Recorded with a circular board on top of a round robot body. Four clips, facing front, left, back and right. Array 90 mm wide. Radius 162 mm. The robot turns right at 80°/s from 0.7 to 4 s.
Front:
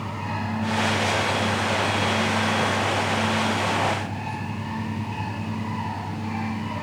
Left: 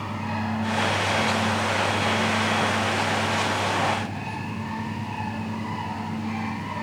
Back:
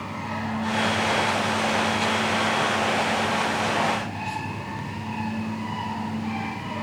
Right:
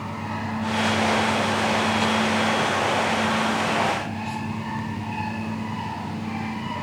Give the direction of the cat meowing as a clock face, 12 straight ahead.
I don't hear a cat meowing.